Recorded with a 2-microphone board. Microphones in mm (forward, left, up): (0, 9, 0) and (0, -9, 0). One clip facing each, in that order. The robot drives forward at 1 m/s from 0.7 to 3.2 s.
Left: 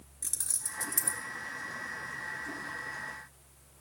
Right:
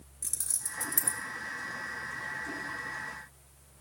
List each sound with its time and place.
0.2 s keys jangling: 10° left (ahead or behind), 1.3 m; by 1.2 s 20° left (ahead or behind), 0.8 m